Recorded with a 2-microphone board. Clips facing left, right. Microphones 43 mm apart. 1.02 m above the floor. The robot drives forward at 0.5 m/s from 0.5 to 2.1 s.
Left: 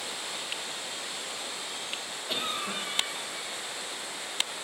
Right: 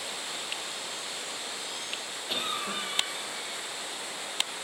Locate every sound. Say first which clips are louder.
2.3 s a cough: even; 5° right (ahead or behind), 1.0 m